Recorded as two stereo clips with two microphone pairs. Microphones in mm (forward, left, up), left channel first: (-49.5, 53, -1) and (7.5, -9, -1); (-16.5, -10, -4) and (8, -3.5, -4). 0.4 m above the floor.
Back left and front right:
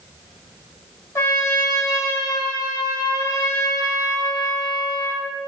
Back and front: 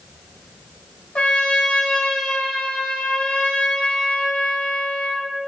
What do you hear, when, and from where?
1.1 s a trumpet: 175° right, 2.5 m